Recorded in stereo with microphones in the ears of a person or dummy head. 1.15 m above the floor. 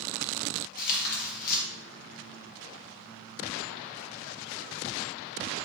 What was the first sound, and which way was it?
Tearing paper, 55° left (ahead or behind).